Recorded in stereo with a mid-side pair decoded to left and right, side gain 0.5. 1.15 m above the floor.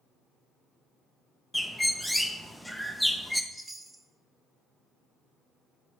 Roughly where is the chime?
Ahead.